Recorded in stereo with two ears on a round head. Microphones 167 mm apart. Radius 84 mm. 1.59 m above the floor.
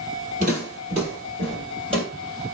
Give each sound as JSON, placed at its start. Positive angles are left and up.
{"t": 0.4, "sound": "footsteps", "side_deg": -45, "distance_m": 2.0}